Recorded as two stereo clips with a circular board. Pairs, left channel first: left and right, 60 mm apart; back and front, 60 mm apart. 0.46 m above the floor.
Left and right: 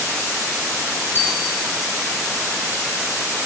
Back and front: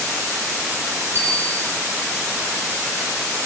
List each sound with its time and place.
1.1 s a bicycle bell: 40° left, 9.5 m